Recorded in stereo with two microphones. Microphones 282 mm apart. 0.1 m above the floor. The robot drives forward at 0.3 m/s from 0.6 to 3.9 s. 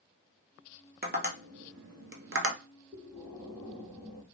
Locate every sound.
1.0 s tapping: 35° right (ahead or behind), 0.7 m; by 2.6 s 50° right (ahead or behind), 0.5 m
2.9 s breathing: 10° right (ahead or behind), 1.3 m